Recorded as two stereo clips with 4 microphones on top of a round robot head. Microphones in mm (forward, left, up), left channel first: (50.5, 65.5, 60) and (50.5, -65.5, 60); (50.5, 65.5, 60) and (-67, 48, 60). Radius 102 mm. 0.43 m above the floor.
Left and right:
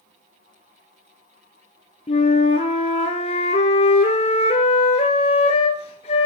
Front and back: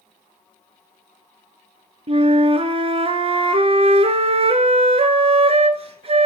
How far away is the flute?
About 1.3 m.